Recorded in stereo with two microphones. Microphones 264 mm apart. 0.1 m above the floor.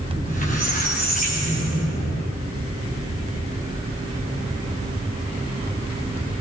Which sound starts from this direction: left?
A squeak, at 0.1 s.